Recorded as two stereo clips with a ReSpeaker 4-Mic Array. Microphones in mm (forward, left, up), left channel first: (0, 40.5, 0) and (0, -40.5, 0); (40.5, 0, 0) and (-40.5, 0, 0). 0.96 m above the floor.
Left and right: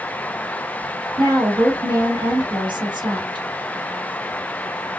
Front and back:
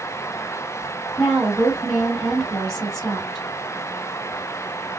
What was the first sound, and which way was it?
A woman speaking, 85° right.